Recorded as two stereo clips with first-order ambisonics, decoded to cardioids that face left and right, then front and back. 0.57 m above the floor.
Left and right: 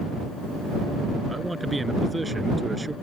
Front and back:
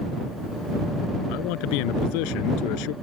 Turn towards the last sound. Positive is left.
turn(degrees=-5)